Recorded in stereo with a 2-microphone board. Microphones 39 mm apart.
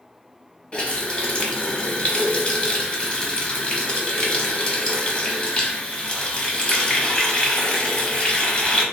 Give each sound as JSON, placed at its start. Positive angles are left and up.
{"t": 0.7, "sound": "a running tap", "side_deg": 30, "distance_m": 0.9}